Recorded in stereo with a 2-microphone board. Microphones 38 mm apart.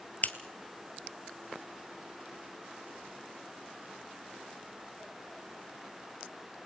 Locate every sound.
0.2 s scissors: 45° left (ahead or behind), 1.3 m